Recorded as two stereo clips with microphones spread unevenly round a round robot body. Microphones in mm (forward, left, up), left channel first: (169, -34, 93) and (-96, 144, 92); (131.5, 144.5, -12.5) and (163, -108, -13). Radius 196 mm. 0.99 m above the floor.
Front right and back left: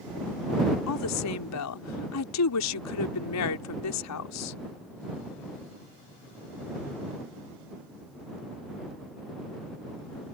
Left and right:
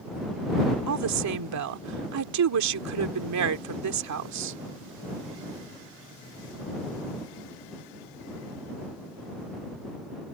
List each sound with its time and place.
0.9 s a woman speaking: 80° right